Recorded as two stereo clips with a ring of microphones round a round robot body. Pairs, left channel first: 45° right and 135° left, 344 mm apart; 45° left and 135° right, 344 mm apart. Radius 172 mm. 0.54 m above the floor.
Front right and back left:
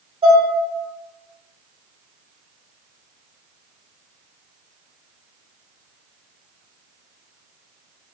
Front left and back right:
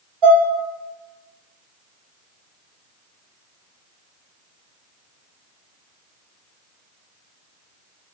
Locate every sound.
0.2 s dishes clattering: 150° right, 0.9 m